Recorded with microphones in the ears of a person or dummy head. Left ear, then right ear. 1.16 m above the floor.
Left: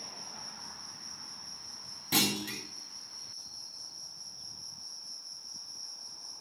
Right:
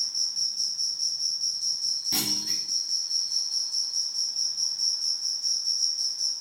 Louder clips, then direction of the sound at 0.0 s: Right 15 dB; 55° right (ahead or behind).